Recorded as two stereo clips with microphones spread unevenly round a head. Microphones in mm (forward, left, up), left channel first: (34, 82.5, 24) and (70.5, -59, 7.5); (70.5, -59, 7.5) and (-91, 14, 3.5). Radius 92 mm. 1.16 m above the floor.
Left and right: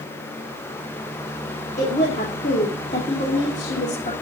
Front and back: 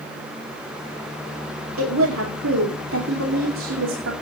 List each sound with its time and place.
1.8 s a woman speaking: 160° left, 2.5 m